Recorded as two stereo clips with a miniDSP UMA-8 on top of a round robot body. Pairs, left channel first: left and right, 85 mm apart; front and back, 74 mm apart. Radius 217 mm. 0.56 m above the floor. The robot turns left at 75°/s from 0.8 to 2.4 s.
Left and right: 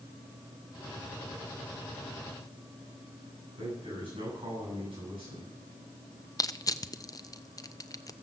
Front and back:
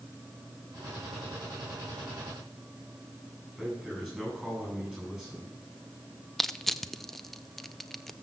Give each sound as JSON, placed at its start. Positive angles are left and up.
{"t": 3.6, "sound": "a man speaking", "azimuth_deg": -105, "distance_m": 9.5}
{"t": 6.4, "sound": "crushing", "azimuth_deg": 85, "distance_m": 0.8}